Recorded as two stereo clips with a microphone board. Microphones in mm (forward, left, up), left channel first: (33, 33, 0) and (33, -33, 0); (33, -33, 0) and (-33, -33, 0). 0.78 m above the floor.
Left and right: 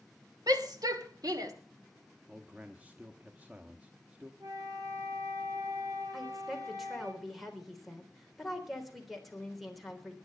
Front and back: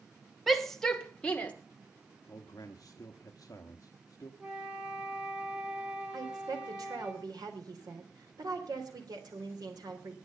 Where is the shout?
90° right, 1.8 m; by 1.5 s 70° right, 2 m.